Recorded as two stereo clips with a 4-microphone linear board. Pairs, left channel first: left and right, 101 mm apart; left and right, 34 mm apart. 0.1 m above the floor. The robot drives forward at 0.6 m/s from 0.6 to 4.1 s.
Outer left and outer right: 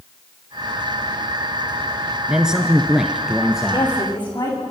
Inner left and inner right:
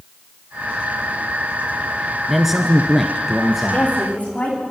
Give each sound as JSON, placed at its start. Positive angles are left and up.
{"t": 2.3, "sound": "a man speaking", "side_deg": -5, "distance_m": 1.1}
{"t": 3.7, "sound": "a woman speaking", "side_deg": 50, "distance_m": 7.5}